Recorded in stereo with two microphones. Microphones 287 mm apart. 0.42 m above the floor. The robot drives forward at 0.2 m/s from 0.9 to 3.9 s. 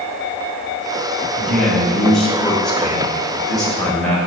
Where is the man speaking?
Centre (ahead or behind), 2 m.